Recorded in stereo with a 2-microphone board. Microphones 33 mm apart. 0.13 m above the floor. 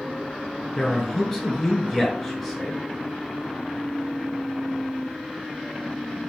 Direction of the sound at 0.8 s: 10° left (ahead or behind).